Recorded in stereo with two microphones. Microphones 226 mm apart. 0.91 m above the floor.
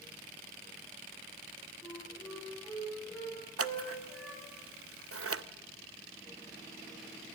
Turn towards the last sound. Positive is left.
turn(degrees=-80)